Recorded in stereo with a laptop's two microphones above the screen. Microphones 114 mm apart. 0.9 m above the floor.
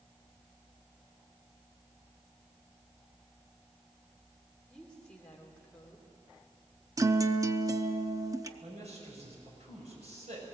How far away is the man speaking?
About 6 m.